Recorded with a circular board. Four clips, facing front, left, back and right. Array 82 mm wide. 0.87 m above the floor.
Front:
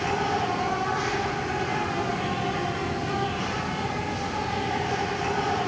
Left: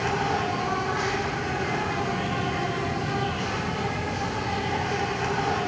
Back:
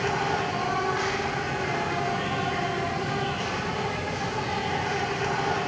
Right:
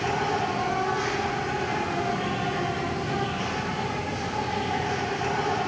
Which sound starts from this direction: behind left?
An insect, at 0.0 s.